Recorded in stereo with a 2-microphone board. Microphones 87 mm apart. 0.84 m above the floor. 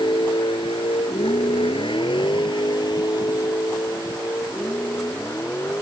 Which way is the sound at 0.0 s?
60° left (ahead or behind).